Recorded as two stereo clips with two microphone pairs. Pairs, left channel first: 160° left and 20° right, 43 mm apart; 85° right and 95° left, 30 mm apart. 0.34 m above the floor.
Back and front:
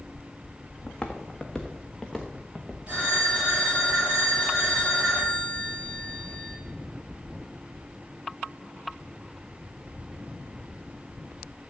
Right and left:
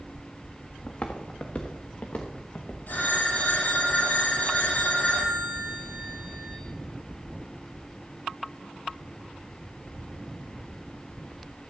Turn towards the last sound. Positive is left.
turn(degrees=-80)